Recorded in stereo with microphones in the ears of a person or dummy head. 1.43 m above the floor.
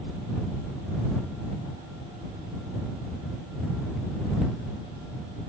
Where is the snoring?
I don't hear snoring.